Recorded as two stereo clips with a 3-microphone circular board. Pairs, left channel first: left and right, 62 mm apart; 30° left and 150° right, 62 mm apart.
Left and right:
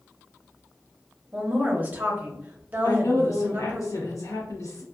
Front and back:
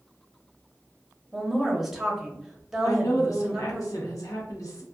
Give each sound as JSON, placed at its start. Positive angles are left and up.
{"t": 1.3, "sound": "a woman speaking", "azimuth_deg": -75, "distance_m": 0.7}
{"t": 2.8, "sound": "a woman speaking", "azimuth_deg": 55, "distance_m": 0.9}